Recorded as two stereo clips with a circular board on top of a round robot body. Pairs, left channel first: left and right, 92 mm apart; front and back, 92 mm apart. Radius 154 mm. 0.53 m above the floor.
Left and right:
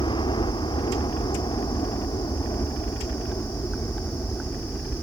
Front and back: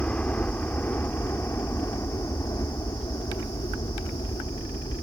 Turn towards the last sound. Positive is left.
turn(degrees=20)